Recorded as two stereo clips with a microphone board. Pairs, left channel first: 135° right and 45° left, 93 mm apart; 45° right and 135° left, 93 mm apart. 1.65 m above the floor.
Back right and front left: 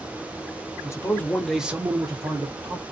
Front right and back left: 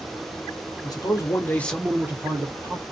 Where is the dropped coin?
No dropped coin in this recording.